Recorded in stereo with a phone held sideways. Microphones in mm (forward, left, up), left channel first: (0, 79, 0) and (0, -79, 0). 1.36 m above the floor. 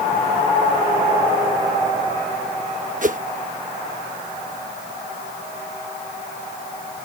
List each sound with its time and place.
3.0 s a whoosh: 55° right (ahead or behind)